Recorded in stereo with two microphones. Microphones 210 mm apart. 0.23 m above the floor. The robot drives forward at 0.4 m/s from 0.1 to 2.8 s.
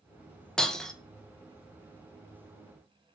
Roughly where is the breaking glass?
Centre.